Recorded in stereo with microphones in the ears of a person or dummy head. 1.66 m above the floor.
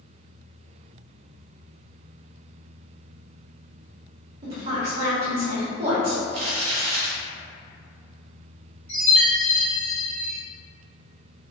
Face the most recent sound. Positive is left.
turn(degrees=10)  # may be behind; listen again after turning